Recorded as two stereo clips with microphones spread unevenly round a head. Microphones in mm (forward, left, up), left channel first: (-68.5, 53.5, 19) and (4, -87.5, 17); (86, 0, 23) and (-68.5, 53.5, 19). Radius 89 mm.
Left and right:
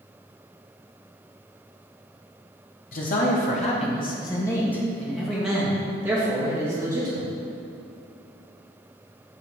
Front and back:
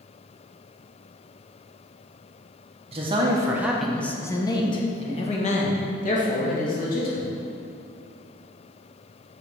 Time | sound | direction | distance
2.9 | a man speaking | 115° left | 1.0 m